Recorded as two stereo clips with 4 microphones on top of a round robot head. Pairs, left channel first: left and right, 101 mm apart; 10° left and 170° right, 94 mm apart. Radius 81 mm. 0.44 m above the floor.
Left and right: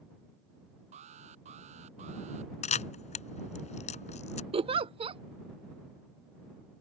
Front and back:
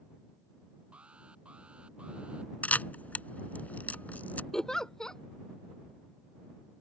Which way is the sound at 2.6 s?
85° left.